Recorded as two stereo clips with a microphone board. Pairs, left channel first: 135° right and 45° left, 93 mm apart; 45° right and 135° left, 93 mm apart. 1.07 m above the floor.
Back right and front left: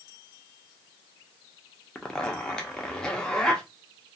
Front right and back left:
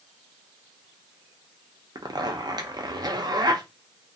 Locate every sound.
1.9 s a zipper: 145° left, 0.5 m